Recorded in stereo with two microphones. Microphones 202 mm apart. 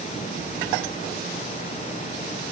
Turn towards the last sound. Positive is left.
No sound to turn to.